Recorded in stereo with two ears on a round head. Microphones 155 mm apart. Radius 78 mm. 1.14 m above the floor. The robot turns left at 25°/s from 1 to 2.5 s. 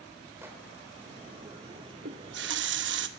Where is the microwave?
15° right (ahead or behind), 2.5 m.